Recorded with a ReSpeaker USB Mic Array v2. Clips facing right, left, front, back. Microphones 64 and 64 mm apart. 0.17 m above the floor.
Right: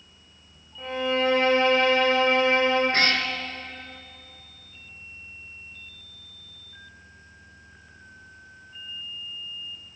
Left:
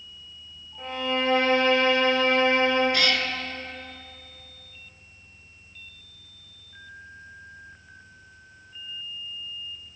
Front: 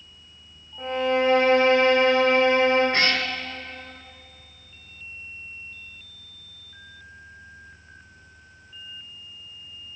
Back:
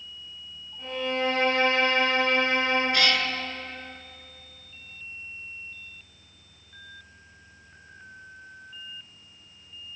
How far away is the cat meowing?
About 0.9 m.